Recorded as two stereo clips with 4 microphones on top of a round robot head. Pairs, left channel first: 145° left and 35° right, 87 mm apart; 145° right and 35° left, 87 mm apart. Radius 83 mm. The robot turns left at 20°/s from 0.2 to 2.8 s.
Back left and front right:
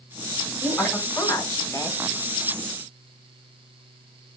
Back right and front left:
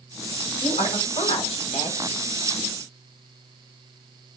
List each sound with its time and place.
0.6 s a woman speaking: 140° right, 6 m; by 2.0 s 165° right, 6 m